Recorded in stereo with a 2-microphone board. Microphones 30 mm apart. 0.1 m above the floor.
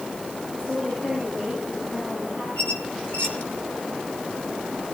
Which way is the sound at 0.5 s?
60° left (ahead or behind).